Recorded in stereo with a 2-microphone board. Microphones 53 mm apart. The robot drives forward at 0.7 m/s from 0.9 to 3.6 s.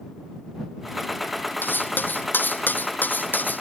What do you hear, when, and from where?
1.6 s cutlery clinking: 40° left (ahead or behind); by 3.6 s 35° left (ahead or behind)